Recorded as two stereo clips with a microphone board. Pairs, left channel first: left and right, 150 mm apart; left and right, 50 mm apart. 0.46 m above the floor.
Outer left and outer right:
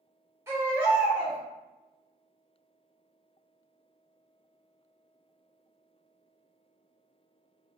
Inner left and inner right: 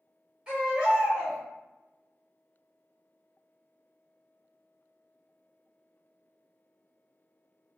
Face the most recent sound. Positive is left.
turn(degrees=-20)  # may be behind; listen again after turning